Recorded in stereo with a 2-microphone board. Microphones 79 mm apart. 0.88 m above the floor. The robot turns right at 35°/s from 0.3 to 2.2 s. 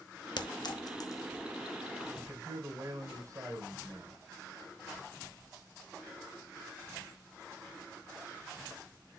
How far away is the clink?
About 1.0 m.